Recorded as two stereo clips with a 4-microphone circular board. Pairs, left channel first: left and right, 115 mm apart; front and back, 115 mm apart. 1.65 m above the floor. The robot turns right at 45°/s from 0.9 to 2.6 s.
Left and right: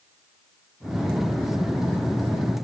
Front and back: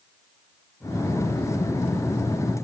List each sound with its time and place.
Only background noise.